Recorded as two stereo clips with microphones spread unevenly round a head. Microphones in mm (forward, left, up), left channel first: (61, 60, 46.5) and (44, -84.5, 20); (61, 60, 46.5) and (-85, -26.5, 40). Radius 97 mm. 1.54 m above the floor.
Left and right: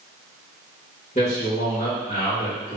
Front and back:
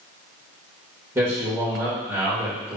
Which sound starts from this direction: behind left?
A man speaking, at 1.1 s.